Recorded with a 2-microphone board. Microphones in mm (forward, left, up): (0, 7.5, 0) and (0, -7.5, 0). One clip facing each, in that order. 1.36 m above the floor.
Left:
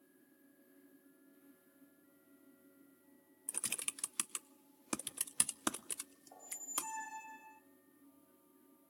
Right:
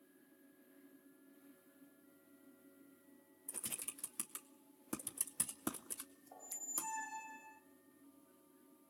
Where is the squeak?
Centre (ahead or behind), 1.3 m.